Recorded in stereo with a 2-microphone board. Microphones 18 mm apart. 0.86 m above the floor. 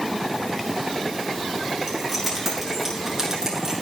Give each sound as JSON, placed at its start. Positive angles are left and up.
{"t": 1.9, "sound": "keys jangling", "side_deg": -5, "distance_m": 8.5}